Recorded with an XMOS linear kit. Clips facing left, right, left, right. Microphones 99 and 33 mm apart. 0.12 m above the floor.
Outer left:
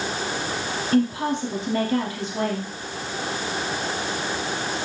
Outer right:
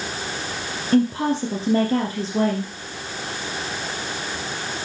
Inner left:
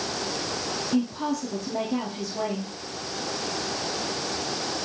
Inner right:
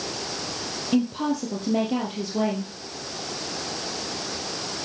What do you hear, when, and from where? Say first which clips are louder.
0.9 s a woman speaking: outer right 3 dB, inner right 3 dB; 35° right (ahead or behind), 3.5 m